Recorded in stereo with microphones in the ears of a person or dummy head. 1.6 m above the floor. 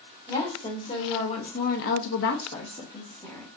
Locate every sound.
0.3 s a woman speaking: 20° left (ahead or behind), 2.5 m; by 3.5 s 15° left (ahead or behind), 1.6 m